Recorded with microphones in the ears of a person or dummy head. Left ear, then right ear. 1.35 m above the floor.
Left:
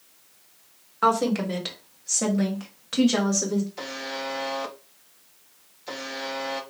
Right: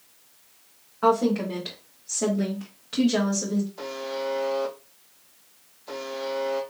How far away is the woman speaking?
About 1.6 m.